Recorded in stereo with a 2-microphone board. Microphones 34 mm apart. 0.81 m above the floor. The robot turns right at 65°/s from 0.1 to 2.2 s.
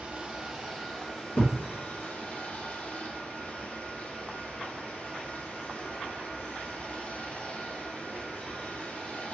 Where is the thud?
50° left (ahead or behind), 1.2 m; by 1.6 s 35° left (ahead or behind), 1.2 m.